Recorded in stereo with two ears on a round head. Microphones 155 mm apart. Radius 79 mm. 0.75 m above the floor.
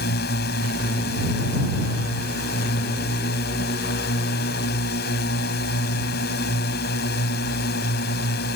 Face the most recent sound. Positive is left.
turn(degrees=60)  # may be behind; listen again after turning